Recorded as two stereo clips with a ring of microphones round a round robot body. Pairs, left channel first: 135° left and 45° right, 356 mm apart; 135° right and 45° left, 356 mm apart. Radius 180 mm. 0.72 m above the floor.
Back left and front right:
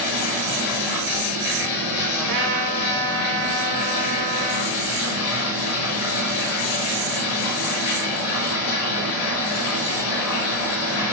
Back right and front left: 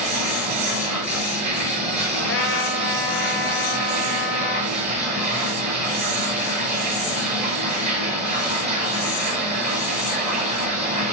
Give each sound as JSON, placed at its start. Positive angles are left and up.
{"t": 0.0, "sound": "running water", "azimuth_deg": 115, "distance_m": 7.0}
{"t": 2.2, "sound": "a trumpet", "azimuth_deg": -80, "distance_m": 2.5}